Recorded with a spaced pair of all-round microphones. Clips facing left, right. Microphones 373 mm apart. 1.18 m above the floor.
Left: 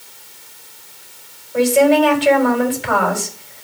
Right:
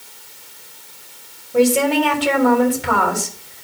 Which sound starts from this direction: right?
A woman speaking, at 1.5 s.